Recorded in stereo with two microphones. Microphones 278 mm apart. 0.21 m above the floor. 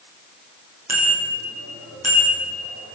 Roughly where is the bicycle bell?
Right.